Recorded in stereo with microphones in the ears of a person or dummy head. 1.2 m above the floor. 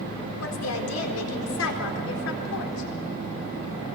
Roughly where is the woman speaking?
Left.